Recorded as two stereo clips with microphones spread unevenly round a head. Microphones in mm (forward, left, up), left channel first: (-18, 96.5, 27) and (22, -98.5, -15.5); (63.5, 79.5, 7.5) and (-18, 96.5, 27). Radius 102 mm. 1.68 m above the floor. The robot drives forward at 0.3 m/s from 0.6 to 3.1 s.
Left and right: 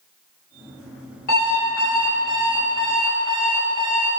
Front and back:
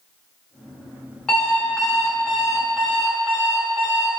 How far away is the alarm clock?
About 1.6 m.